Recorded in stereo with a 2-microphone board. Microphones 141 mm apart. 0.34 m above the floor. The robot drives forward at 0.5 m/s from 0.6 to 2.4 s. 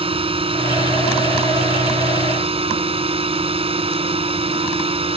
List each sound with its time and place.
0.0 s a drone: 40° right (ahead or behind)